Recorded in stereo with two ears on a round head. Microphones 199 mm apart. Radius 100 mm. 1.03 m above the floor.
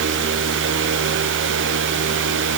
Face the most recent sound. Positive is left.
No sound to turn to.